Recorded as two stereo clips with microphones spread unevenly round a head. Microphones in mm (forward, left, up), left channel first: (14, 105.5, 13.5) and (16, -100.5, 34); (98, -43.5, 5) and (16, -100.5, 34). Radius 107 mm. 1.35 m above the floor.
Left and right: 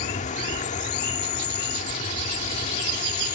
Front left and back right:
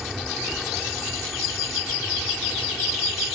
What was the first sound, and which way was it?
An insect, 145° left.